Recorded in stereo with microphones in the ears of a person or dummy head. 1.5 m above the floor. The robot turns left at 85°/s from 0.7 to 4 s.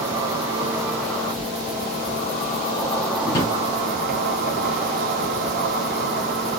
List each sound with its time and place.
0.0 s an insect: 155° right, 1.3 m; by 6.6 s 75° right, 1.3 m
3.2 s a drawer: 25° left (ahead or behind), 1.4 m; by 3.5 s 10° left (ahead or behind), 1.4 m